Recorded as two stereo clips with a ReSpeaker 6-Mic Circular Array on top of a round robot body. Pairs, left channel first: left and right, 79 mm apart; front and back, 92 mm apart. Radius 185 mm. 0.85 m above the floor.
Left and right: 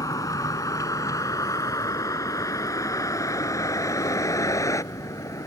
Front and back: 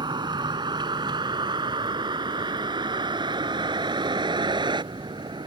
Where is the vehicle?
140° left.